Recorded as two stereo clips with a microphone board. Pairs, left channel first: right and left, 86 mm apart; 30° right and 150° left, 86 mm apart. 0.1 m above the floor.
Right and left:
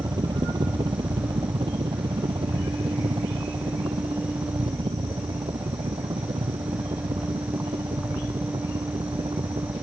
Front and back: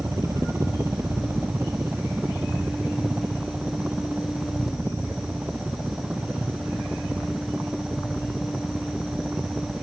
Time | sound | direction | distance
0.0 | a helicopter | 105° left | ?